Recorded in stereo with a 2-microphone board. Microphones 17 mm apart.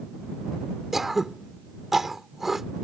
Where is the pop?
No pop in this recording.